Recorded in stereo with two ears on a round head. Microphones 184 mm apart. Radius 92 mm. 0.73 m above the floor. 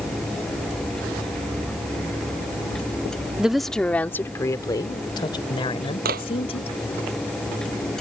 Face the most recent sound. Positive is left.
turn(degrees=-50)  # may be behind; listen again after turning